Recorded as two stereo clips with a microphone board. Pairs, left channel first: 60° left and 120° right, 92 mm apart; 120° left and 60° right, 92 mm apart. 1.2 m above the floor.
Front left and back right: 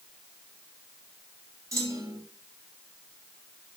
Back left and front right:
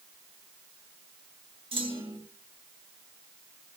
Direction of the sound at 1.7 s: 65° right.